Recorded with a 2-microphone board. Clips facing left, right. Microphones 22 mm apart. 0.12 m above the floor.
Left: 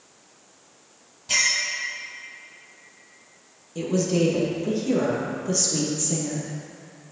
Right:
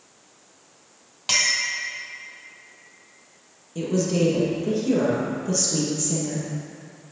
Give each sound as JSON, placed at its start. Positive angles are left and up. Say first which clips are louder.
{"t": 1.3, "sound": "a clink", "louder": "right 1 dB", "side_deg": -70, "distance_m": 2.0}
{"t": 3.8, "sound": "a woman speaking", "louder": "even", "side_deg": 5, "distance_m": 2.5}